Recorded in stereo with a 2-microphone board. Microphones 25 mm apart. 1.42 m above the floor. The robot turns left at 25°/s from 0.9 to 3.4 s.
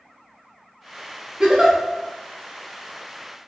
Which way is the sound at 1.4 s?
25° right (ahead or behind).